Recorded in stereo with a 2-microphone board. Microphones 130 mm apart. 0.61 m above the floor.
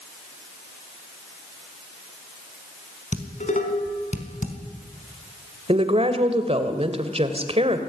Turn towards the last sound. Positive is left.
turn(degrees=-50)  # may be behind; listen again after turning